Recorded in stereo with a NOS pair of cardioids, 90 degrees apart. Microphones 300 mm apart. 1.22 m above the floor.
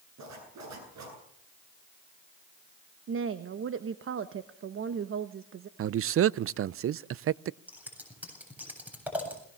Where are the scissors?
5° right, 8 m.